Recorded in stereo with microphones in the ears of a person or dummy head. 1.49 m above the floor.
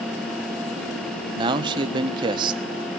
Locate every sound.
1.4 s a man speaking: 30° right (ahead or behind), 1.3 m